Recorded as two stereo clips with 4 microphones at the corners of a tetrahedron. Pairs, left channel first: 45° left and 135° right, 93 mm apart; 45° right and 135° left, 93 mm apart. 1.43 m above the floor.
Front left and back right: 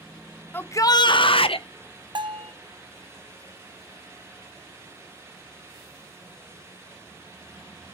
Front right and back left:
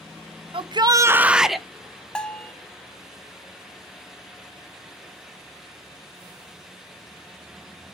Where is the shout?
115° left, 0.7 m; by 1.7 s 40° left, 1.0 m.